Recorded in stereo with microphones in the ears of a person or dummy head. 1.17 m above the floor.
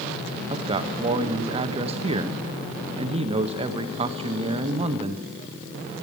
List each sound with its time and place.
0.5 s a man speaking: 35° right (ahead or behind), 0.7 m